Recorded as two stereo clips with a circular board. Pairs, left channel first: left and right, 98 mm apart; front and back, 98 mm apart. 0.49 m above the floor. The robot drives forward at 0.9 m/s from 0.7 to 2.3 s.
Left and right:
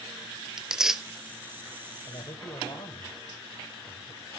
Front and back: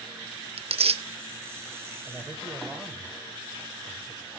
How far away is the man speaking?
About 1.5 m.